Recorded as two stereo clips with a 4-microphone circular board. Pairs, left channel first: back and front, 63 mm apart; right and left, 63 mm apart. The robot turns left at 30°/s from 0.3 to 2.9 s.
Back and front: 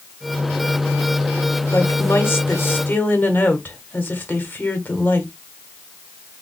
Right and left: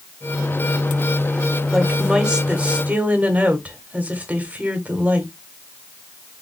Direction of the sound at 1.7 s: 175° left.